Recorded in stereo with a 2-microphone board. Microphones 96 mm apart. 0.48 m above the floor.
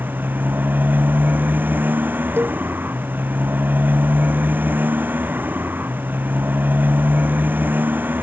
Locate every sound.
0.0 s a motorcycle: 20° right (ahead or behind)
2.4 s a cowbell: 20° right (ahead or behind)